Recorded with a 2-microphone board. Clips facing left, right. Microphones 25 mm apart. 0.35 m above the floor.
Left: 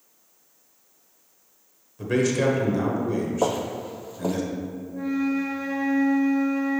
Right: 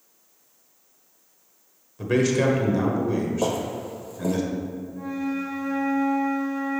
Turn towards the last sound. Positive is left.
turn(degrees=40)  # may be behind; listen again after turning